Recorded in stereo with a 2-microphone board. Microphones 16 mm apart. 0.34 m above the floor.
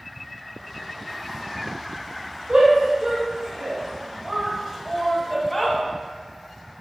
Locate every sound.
2.5 s a shout: 70° right (ahead or behind), 2.5 m; by 5.8 s 20° left (ahead or behind), 1.8 m